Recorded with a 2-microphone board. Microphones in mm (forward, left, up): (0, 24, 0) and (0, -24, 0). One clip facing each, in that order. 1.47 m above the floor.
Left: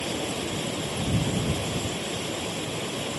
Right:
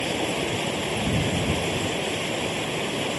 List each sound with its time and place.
0.0 s running water: 45° right (ahead or behind)